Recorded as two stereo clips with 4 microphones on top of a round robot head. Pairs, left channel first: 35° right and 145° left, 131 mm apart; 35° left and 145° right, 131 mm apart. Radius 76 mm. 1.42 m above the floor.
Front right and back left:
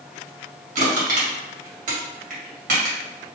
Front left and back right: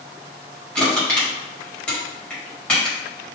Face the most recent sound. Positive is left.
turn(degrees=115)